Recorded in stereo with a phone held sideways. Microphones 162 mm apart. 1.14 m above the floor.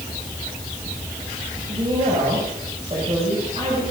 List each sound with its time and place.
1.7 s a woman speaking: 40° right (ahead or behind), 7 m